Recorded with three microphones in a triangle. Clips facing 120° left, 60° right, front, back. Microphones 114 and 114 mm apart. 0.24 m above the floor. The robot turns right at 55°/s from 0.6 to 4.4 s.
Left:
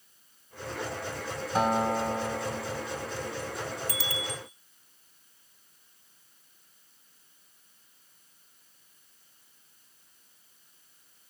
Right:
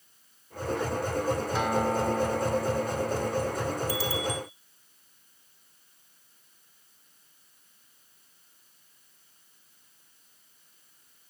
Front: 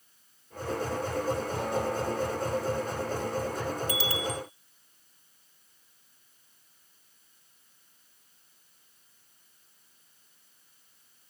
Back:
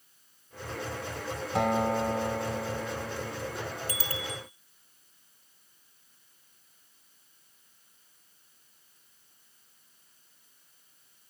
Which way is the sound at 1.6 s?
170° left.